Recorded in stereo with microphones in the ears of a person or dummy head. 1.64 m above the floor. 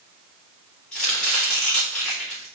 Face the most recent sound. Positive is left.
turn(degrees=5)  # may be behind; listen again after turning